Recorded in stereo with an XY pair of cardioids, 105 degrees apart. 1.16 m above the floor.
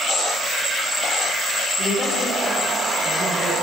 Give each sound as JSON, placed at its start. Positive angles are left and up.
{"t": 1.8, "sound": "a man speaking", "azimuth_deg": 35, "distance_m": 6.0}